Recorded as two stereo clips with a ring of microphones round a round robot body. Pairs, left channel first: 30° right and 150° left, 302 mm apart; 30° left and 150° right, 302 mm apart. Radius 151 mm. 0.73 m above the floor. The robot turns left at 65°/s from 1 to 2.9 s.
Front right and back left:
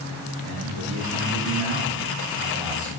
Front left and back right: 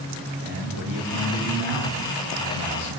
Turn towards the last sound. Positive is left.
turn(degrees=70)